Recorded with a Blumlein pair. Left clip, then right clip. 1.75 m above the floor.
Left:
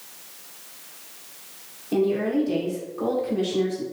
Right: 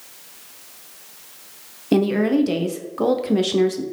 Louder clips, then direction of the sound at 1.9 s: Right 4 dB; 35° right.